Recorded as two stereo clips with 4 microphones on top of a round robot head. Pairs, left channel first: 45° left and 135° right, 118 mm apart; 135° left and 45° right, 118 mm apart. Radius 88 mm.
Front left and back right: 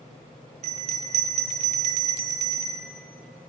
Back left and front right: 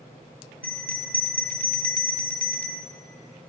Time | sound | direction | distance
0.6 | a bell | 145° right | 0.8 m